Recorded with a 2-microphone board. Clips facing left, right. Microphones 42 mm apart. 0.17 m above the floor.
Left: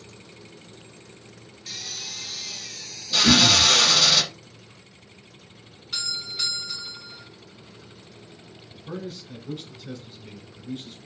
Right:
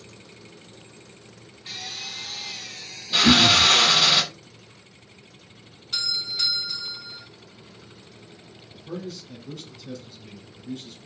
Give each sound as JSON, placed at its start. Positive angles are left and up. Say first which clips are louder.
{"t": 1.7, "sound": "a drill", "louder": "right 2 dB", "side_deg": -20, "distance_m": 0.5}
{"t": 3.2, "sound": "throat clearing", "louder": "right 2 dB", "side_deg": -40, "distance_m": 0.6}
{"t": 5.9, "sound": "a doorbell", "louder": "right 2 dB", "side_deg": 0, "distance_m": 1.8}
{"t": 8.7, "sound": "a man speaking", "louder": "even", "side_deg": 25, "distance_m": 1.2}